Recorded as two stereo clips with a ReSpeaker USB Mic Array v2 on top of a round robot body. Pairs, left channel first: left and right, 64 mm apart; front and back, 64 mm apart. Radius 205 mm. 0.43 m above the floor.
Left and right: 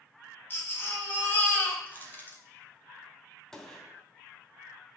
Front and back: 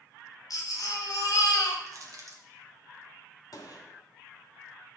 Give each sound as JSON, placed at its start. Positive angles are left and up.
{"t": 0.5, "sound": "a baby crying", "azimuth_deg": 30, "distance_m": 1.8}
{"t": 1.9, "sound": "crushing", "azimuth_deg": 150, "distance_m": 2.0}
{"t": 3.5, "sound": "a gunshot", "azimuth_deg": 10, "distance_m": 2.5}